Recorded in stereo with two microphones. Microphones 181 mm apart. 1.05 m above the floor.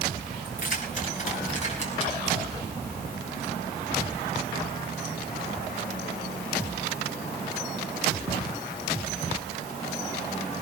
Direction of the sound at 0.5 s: 50° left (ahead or behind).